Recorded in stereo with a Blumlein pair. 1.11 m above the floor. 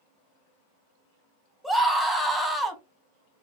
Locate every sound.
1.6 s a scream: straight ahead, 0.8 m